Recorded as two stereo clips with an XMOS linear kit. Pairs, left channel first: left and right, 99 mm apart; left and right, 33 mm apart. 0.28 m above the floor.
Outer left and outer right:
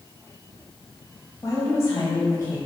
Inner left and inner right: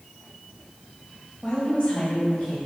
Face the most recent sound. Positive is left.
turn(degrees=35)  # may be behind; listen again after turning